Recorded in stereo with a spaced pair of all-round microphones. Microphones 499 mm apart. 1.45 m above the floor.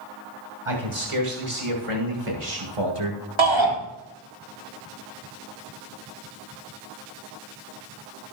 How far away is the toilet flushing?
No toilet flushing in this recording.